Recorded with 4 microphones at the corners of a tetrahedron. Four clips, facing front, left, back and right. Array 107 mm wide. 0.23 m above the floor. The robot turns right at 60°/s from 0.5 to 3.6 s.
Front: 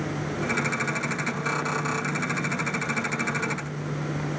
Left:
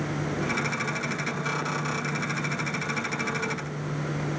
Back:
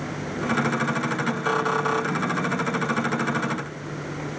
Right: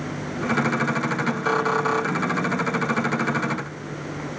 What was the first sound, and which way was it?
Only background noise.